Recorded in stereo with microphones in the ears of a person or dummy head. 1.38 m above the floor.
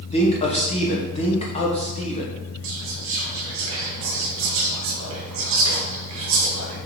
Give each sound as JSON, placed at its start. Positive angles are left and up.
{"t": 0.1, "sound": "a man speaking", "side_deg": 25, "distance_m": 1.0}
{"t": 2.6, "sound": "whispering", "side_deg": -70, "distance_m": 1.0}